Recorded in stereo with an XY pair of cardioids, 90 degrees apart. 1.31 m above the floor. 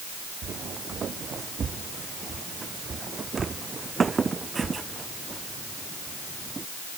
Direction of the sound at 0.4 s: 60° right.